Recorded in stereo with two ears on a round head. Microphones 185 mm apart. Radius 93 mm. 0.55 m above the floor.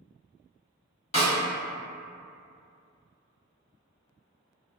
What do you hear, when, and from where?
1.1 s a snare drum: 35° left (ahead or behind), 1.5 m